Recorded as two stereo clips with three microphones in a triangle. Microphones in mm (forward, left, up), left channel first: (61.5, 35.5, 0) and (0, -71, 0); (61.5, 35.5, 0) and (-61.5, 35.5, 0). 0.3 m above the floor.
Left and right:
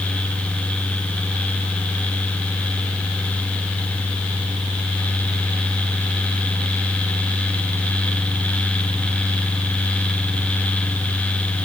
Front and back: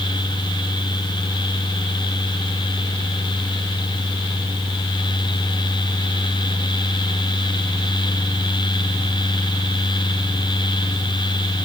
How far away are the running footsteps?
No running footsteps in this recording.